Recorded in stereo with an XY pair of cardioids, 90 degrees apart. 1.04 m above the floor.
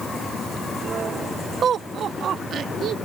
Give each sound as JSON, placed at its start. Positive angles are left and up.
{"t": 1.6, "sound": "laughter", "azimuth_deg": -60}